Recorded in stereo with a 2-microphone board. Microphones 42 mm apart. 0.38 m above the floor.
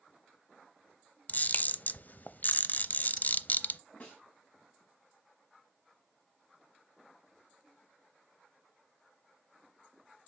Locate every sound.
1.3 s a camera shutter: 45° left (ahead or behind), 0.5 m
4.0 s a snare drum: 35° left (ahead or behind), 3.5 m